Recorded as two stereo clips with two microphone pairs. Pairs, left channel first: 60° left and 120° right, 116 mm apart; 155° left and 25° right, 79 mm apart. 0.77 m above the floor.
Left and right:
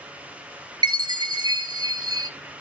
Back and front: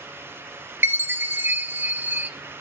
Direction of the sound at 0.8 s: 80° right.